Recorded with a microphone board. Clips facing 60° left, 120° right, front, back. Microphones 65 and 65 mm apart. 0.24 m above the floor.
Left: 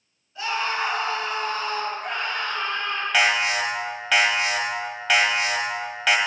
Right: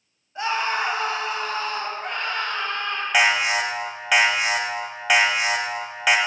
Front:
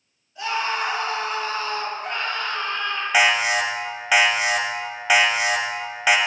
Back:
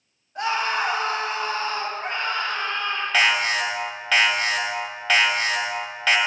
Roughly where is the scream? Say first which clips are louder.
Right 2 dB, back 1 dB; behind.